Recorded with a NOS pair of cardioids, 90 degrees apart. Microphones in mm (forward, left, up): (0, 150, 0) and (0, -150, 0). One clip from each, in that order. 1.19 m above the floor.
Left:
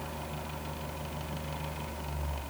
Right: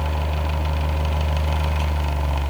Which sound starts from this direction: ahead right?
A fan, at 0.0 s.